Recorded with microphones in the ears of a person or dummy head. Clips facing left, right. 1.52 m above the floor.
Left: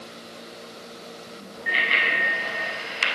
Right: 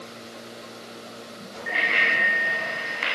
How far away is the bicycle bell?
About 8.5 m.